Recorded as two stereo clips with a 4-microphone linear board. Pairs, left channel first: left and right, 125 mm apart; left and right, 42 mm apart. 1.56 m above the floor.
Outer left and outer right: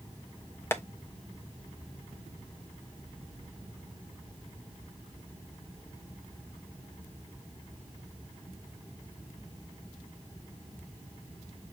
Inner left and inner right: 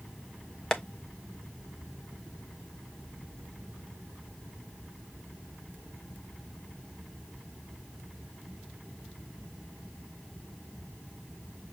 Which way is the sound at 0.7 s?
20° left (ahead or behind).